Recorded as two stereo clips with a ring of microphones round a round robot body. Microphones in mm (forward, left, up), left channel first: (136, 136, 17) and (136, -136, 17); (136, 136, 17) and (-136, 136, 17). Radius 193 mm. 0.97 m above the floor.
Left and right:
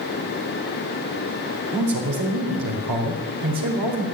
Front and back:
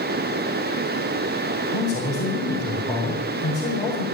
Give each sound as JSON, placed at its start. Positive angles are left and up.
{"t": 1.7, "sound": "a man speaking", "azimuth_deg": -80, "distance_m": 4.0}